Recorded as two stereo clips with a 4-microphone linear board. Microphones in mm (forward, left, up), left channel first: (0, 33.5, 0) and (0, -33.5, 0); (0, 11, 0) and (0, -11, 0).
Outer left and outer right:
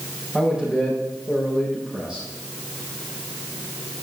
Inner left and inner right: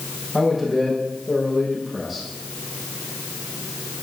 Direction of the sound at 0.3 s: 10° right (ahead or behind).